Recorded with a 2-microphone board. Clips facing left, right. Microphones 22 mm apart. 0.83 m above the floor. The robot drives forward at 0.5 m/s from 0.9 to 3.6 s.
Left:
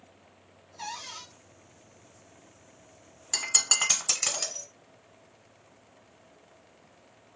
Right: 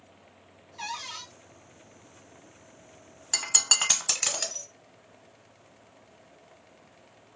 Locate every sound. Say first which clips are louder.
0.8 s a cupboard door: right 3 dB; 65° right (ahead or behind), 0.8 m; by 1.3 s 60° right (ahead or behind), 0.8 m
3.3 s breaking glass: right 1 dB; 10° right (ahead or behind), 0.8 m; by 4.7 s 15° right (ahead or behind), 0.7 m